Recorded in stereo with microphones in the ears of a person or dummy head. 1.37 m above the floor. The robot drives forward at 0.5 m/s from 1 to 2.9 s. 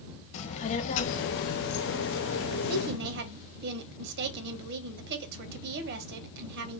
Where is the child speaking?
45° left (ahead or behind), 0.8 m; by 2.6 s 65° left (ahead or behind), 0.7 m.